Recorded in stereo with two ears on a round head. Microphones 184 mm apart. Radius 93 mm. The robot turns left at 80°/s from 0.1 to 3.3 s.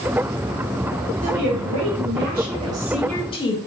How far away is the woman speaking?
About 0.8 m.